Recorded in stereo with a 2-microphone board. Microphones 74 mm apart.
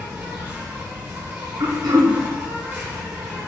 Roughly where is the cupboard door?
No cupboard door in this recording.